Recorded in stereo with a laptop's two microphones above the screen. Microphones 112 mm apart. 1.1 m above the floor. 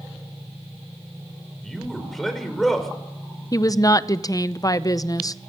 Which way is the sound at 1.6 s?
5° left (ahead or behind).